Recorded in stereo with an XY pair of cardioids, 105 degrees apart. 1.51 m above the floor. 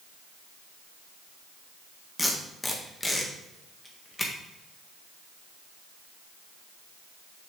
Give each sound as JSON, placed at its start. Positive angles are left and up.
{"t": 2.2, "sound": "tape being pulled", "azimuth_deg": 10, "distance_m": 1.7}